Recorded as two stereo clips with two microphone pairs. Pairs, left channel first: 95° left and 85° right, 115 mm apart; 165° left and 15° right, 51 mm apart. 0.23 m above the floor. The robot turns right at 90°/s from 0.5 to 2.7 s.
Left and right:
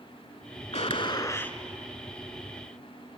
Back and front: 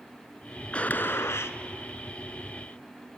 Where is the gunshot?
105° left, 0.9 m; by 1.6 s straight behind, 0.9 m.